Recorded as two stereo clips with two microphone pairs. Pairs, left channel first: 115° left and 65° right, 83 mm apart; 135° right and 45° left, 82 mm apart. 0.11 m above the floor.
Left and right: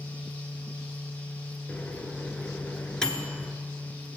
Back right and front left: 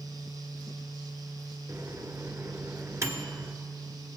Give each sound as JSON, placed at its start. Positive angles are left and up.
{"t": 1.7, "sound": "a microwave", "azimuth_deg": 45, "distance_m": 1.2}